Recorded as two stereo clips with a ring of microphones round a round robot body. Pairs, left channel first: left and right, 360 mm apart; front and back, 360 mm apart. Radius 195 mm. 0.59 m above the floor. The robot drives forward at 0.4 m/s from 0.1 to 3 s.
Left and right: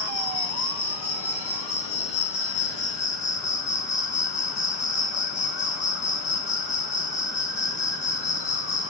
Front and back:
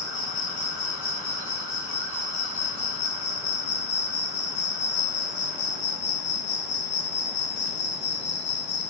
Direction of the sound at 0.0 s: 35° left.